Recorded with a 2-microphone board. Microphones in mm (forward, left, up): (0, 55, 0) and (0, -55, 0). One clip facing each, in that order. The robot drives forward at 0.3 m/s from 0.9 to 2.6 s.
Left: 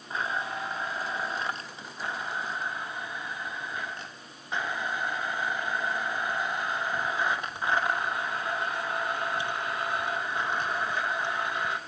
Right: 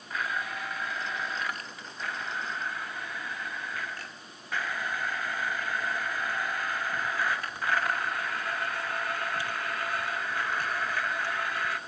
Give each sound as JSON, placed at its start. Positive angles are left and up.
{"t": 0.1, "sound": "a blender", "side_deg": 30, "distance_m": 0.6}